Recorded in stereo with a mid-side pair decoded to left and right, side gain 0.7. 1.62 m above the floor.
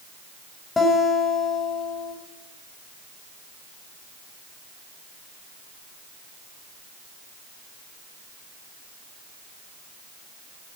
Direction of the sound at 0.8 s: 20° left.